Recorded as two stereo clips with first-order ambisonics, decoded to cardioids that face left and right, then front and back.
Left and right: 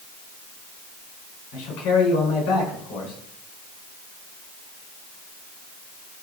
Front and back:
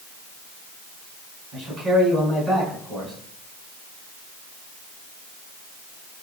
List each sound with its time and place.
1.5 s a man speaking: 110° left, 4.5 m